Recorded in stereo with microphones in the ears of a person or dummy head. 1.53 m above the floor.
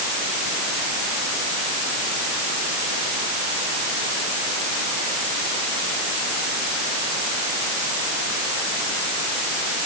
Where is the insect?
I don't hear an insect.